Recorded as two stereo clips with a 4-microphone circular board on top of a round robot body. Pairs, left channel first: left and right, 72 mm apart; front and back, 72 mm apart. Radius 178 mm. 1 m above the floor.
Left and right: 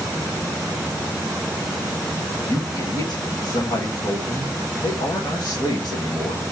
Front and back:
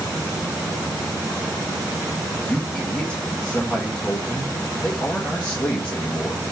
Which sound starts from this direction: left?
A man speaking, at 2.5 s.